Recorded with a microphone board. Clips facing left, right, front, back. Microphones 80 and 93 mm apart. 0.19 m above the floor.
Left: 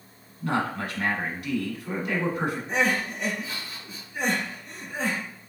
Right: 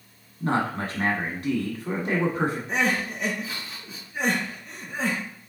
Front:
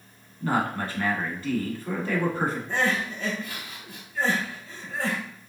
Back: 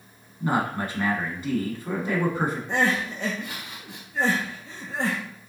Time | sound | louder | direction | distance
0.4 | a man speaking | right 2 dB, back 1 dB | 120° right | 1.4 m
2.7 | crying | even, back 2 dB | straight behind | 2.5 m